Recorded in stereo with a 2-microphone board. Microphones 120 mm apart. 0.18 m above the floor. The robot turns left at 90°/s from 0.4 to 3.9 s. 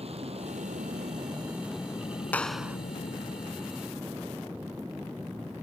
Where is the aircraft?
60° right; by 5.6 s 15° right.